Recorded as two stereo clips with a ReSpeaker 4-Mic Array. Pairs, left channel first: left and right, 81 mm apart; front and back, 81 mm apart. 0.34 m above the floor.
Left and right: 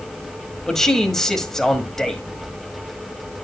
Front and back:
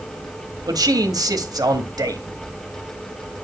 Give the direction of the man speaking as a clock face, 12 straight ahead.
6 o'clock.